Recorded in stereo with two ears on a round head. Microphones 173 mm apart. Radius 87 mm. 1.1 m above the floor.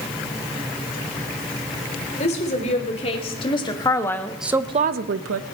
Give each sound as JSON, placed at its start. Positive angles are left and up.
{"t": 2.2, "sound": "a woman speaking", "side_deg": 40, "distance_m": 3.5}